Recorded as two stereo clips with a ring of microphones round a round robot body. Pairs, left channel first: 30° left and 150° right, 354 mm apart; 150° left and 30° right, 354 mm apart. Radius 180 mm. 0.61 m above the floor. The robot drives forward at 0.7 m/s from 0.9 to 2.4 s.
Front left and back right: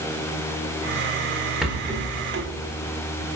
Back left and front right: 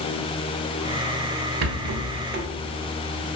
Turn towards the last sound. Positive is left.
turn(degrees=-95)